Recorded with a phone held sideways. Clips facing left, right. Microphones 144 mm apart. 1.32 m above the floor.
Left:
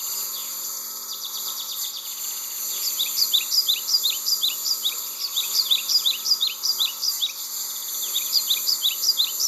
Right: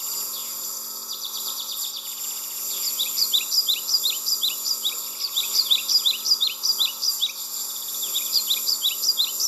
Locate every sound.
0.0 s a lawn mower: 5° right (ahead or behind)